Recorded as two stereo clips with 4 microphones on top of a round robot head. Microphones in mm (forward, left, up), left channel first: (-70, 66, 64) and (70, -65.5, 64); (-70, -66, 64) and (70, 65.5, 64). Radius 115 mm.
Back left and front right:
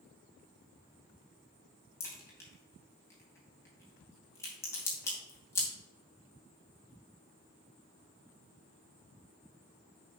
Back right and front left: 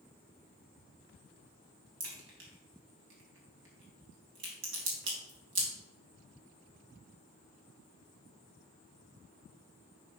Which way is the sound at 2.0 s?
60° left.